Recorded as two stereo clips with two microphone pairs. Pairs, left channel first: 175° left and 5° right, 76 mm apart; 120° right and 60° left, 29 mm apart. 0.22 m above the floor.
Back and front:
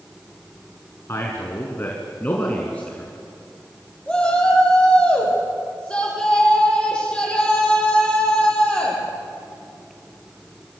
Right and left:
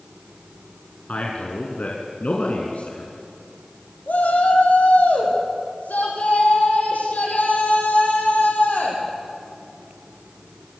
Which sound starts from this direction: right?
A shout, at 4.1 s.